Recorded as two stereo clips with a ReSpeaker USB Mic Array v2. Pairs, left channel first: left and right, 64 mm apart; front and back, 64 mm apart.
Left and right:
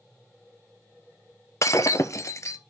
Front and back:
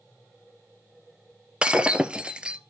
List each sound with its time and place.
1.6 s breaking glass: 110° left, 0.5 m